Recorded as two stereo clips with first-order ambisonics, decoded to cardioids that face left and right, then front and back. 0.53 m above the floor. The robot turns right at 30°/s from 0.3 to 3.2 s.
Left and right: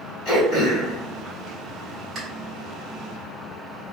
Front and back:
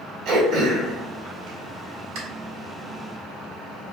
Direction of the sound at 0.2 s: 140° left.